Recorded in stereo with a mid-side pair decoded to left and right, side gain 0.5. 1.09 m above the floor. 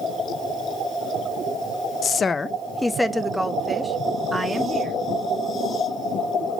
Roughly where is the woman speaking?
Ahead left.